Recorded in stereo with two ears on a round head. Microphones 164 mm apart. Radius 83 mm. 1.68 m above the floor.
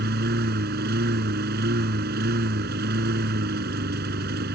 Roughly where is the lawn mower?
Right.